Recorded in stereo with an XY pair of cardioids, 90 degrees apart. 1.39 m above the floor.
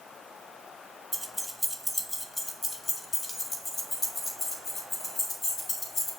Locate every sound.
1.1 s keys jangling: 10° right, 1.4 m; by 6.1 s 55° left, 4.5 m